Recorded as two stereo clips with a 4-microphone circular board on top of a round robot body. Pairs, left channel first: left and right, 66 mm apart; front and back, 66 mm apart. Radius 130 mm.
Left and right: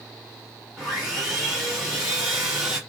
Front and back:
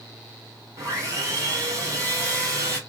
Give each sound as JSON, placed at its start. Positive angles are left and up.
{"t": 0.8, "sound": "sawing", "azimuth_deg": -165, "distance_m": 2.0}